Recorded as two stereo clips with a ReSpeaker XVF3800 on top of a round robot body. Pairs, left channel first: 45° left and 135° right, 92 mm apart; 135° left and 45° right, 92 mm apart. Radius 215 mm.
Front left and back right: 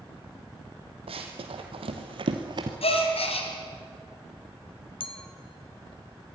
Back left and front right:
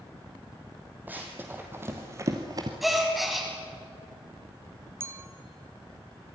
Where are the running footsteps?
115° right, 2.5 m; by 2.7 s 90° right, 1.0 m.